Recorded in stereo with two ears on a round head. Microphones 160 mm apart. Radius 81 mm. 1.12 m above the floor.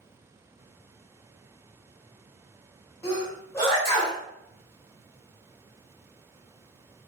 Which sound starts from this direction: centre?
A sneeze, at 3.0 s.